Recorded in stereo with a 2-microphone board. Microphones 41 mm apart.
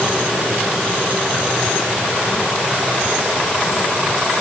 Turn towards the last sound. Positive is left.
No sound to turn to.